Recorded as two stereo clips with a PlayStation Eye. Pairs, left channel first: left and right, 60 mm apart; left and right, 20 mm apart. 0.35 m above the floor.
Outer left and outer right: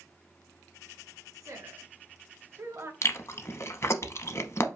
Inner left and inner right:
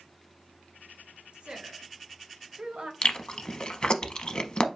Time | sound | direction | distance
1.3 | a woman speaking | 65° right (ahead or behind) | 2 m
3.0 | chewing | 50° left (ahead or behind) | 0.6 m